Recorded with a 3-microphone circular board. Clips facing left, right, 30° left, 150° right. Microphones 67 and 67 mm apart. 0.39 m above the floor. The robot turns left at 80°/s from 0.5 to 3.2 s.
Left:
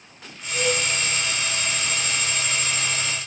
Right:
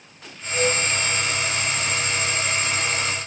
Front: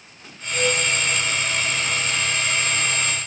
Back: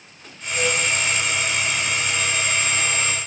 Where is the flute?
5° left, 5 m; by 0.8 s 15° right, 5 m.